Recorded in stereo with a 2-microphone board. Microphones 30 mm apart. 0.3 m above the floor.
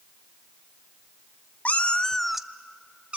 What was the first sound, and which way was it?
A cat meowing, 60° left (ahead or behind).